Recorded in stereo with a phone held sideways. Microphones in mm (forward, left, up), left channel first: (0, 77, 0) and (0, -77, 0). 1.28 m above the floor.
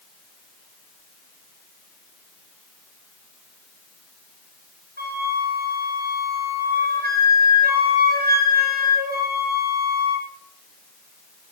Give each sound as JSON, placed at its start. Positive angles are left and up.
{"t": 5.0, "sound": "a flute", "side_deg": -85, "distance_m": 6.0}